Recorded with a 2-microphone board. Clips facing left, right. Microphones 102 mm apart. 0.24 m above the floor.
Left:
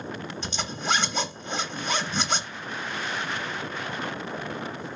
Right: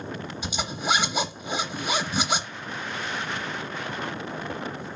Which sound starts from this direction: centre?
A zipper, at 0.4 s.